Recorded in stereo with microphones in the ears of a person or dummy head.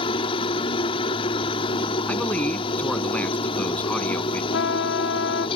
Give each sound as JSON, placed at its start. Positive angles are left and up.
{"t": 0.0, "sound": "a helicopter", "side_deg": 30}
{"t": 2.1, "sound": "a man speaking", "side_deg": 15}
{"t": 4.5, "sound": "a trumpet", "side_deg": 55}